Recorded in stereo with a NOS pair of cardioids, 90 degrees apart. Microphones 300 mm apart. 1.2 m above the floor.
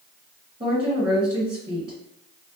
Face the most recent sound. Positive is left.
turn(degrees=-20)